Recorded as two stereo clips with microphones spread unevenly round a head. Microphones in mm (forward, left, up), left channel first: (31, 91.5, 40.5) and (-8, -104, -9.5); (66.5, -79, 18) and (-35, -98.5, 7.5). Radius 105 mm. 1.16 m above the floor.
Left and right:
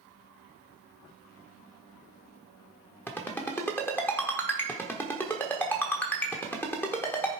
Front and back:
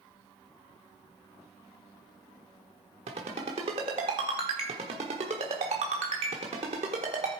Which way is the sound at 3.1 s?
150° left.